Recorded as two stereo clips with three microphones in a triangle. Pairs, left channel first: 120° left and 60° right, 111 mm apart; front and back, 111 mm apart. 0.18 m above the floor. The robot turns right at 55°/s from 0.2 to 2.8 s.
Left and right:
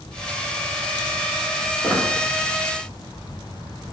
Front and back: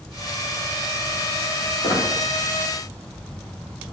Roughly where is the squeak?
Ahead left.